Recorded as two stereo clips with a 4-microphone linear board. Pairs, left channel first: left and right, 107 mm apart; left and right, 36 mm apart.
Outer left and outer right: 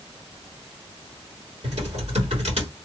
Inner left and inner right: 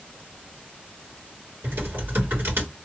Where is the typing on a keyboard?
80° right, 2 m.